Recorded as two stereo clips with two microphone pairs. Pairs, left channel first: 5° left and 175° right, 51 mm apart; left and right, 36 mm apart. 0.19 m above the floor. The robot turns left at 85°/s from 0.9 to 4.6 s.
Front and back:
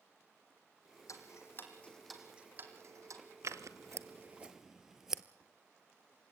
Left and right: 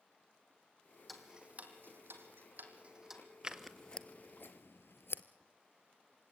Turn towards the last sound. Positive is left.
turn(degrees=100)